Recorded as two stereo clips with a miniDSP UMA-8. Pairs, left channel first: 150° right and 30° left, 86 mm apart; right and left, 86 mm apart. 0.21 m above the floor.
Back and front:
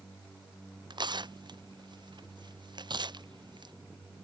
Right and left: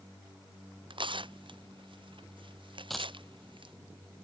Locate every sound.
0.9 s tearing paper: 65° left
2.9 s a dropped coin: straight ahead